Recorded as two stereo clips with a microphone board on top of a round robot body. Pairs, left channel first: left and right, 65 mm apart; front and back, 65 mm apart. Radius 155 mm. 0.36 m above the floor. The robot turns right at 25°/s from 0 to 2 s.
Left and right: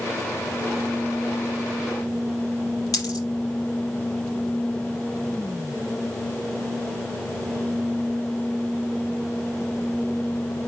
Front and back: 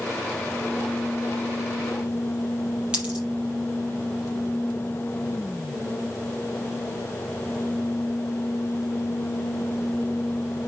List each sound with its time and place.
2.9 s a dropped coin: 105° left, 4.5 m